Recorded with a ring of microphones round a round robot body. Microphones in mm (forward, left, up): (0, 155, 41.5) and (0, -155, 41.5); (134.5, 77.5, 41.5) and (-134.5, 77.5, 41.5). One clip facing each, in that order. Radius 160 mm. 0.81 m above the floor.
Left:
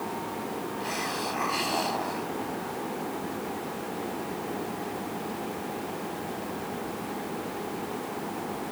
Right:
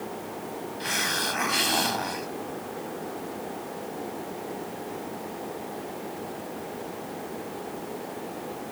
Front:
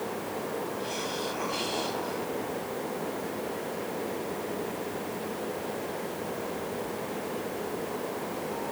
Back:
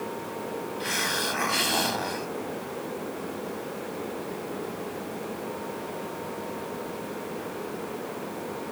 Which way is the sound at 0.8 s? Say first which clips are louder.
Left 1 dB, even; 145° right.